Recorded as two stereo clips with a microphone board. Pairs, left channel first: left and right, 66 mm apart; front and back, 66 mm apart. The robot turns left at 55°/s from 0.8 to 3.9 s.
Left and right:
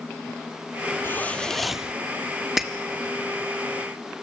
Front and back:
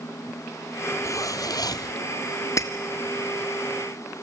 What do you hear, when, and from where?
1.0 s a zipper: 35° left, 0.7 m; by 1.9 s 15° right, 0.7 m
2.6 s breaking glass: 5° right, 1.3 m; by 2.7 s 15° right, 1.3 m